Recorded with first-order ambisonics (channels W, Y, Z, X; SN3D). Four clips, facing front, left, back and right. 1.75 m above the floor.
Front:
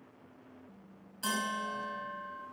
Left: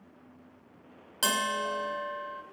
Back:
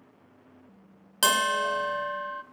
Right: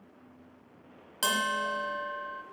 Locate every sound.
1.2 s a bell: 175° left, 0.8 m